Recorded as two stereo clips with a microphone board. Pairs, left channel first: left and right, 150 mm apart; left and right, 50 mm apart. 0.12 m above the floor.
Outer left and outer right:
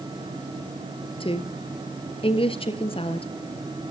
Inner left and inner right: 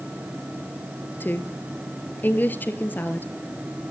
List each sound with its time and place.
1.2 s a woman speaking: 40° left (ahead or behind), 1.8 m